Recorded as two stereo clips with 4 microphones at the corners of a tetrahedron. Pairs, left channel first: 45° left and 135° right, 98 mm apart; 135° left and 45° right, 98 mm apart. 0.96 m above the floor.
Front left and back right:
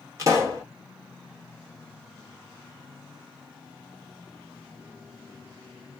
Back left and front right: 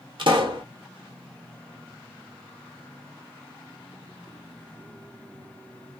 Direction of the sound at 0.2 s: 80° right.